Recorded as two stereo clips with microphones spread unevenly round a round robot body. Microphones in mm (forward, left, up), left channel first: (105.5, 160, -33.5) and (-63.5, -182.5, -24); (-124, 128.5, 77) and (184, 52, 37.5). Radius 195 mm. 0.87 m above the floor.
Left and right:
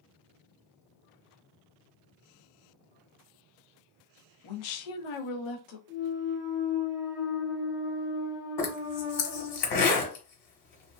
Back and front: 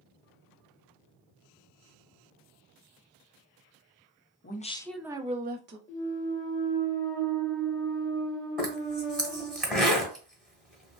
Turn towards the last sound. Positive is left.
turn(degrees=80)